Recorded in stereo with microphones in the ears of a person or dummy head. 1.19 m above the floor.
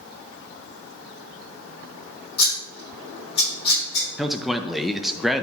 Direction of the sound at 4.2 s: Centre (ahead or behind).